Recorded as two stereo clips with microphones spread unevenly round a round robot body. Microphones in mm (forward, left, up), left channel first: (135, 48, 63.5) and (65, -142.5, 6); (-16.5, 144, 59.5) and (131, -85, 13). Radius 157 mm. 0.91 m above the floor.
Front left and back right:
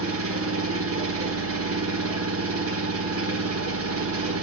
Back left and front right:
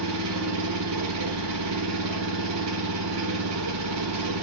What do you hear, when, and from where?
0.0 s an engine running: 100° right, 1.2 m